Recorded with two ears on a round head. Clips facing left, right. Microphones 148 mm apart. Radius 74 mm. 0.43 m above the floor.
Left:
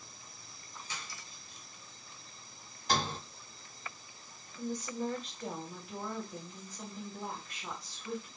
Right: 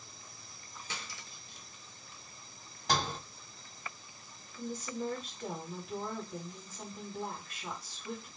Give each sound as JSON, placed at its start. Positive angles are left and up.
{"t": 0.9, "sound": "cutlery clinking", "side_deg": -55, "distance_m": 0.7}
{"t": 2.9, "sound": "a sliding door", "side_deg": -65, "distance_m": 1.9}
{"t": 4.6, "sound": "a woman speaking", "side_deg": -5, "distance_m": 1.3}